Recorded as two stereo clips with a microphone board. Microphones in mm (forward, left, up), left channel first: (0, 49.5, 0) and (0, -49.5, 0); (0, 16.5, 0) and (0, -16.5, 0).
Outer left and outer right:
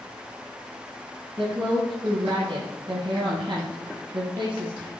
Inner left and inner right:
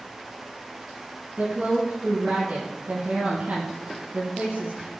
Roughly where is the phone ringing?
I don't hear a phone ringing.